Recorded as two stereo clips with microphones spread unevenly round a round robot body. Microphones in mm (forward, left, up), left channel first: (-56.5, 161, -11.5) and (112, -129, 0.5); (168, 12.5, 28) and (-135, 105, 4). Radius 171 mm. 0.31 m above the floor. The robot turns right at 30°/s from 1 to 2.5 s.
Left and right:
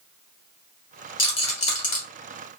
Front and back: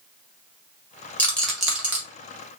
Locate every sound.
1.2 s a rattle: 70° left, 1.6 m; by 2.0 s 95° left, 1.6 m